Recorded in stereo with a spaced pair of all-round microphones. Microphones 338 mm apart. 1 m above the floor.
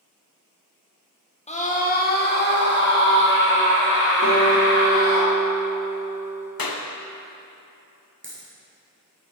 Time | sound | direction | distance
1.5 | a scream | 20° left (ahead or behind) | 0.9 m
4.2 | a guitar | 70° left (ahead or behind) | 2 m
6.6 | a clap | 80° left | 0.6 m
8.2 | a dropped coin | 35° right (ahead or behind) | 1.7 m